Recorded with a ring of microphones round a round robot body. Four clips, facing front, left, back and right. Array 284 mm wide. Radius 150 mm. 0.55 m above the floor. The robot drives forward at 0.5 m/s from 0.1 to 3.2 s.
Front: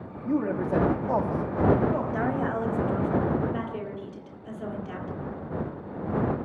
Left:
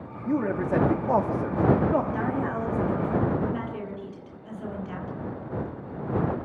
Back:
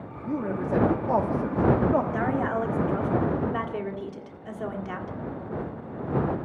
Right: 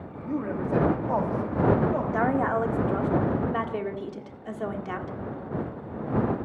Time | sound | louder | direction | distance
0.2 | a man speaking | left 3 dB, front 2 dB | 60° left | 1.1 m
2.1 | a woman speaking | right 4 dB, back 1 dB | 95° right | 1.6 m